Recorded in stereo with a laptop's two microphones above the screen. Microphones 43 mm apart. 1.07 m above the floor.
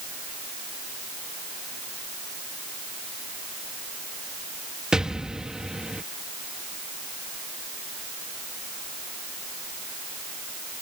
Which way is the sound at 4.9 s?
20° right (ahead or behind).